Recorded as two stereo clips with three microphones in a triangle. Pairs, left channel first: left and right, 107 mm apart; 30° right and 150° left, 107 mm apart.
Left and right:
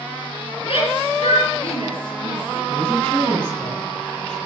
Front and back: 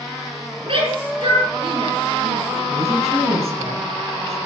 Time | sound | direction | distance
0.7 | a shout | 120° left | 7 m
2.7 | a woman speaking | 170° left | 8.5 m